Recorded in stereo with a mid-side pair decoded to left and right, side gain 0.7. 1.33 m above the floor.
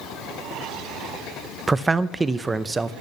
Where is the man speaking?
20° right, 0.7 m.